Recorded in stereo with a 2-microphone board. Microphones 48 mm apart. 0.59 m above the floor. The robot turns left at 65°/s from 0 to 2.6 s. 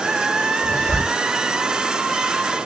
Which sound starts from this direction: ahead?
A zipper, at 0.6 s.